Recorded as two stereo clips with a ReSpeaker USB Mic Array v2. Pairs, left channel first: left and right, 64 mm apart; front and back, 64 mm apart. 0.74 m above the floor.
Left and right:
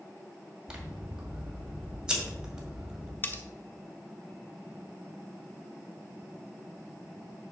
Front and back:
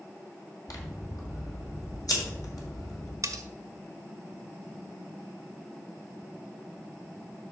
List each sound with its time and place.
0.7 s scissors: 15° right, 1.8 m
3.2 s cutlery clinking: 150° left, 0.7 m